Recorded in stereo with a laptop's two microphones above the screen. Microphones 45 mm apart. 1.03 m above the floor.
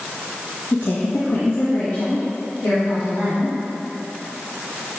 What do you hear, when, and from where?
0.7 s a woman speaking: 65° left (ahead or behind), 0.9 m